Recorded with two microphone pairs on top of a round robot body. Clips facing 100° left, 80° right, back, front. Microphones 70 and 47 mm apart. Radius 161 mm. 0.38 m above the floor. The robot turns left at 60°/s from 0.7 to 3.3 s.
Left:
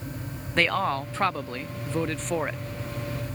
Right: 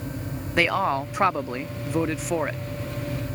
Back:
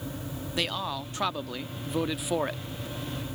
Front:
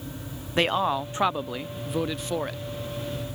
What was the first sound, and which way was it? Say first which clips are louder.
A man speaking: right 2 dB, front 8 dB; 35° right.